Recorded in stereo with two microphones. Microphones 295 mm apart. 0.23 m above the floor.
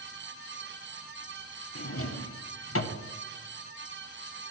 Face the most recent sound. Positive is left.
turn(degrees=50)  # may be behind; listen again after turning